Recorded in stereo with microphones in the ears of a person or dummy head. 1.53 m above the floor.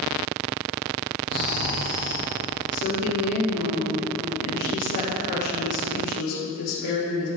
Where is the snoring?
60° right (ahead or behind), 2.5 m.